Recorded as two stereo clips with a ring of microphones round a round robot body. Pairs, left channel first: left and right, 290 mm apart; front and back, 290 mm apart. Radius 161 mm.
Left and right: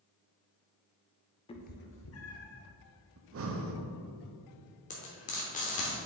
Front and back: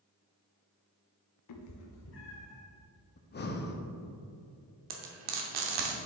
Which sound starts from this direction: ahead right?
Breathing, at 3.2 s.